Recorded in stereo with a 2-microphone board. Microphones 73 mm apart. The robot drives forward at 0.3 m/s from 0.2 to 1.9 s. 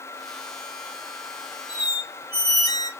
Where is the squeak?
65° left (ahead or behind), 1.1 m.